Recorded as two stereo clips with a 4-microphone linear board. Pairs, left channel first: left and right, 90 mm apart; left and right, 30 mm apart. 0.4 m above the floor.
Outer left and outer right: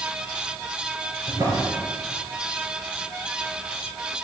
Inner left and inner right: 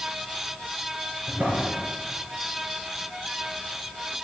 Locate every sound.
1.3 s a drawer: 45° right (ahead or behind), 3.5 m